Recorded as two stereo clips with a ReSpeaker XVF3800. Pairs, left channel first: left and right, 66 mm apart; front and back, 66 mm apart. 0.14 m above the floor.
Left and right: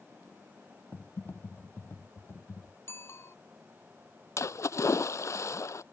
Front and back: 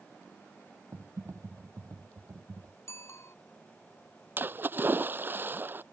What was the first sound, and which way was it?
Typing on a keyboard, 140° left.